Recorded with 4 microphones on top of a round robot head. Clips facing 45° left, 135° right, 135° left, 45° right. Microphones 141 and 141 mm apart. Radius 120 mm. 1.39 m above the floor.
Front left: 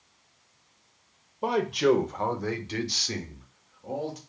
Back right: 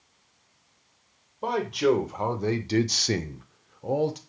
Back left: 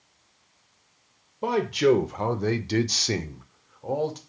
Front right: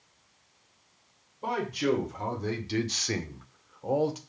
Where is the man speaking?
125° left, 0.9 m; by 4.2 s 120° right, 0.8 m.